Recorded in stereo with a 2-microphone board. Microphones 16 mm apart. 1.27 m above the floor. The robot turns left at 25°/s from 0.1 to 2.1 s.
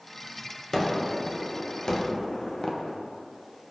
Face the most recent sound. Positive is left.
turn(degrees=120)